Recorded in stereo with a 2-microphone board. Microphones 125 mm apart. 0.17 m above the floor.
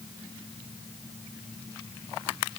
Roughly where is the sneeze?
No sneeze in this recording.